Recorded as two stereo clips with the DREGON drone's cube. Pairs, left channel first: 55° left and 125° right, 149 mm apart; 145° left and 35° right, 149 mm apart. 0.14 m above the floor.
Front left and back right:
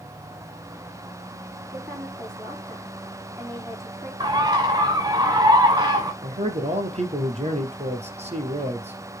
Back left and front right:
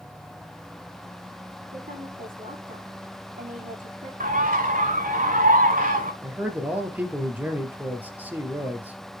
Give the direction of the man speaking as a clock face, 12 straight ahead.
4 o'clock.